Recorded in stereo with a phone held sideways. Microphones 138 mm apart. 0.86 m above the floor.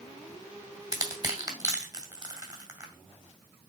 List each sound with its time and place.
0.9 s crushing: 25° right (ahead or behind), 2.5 m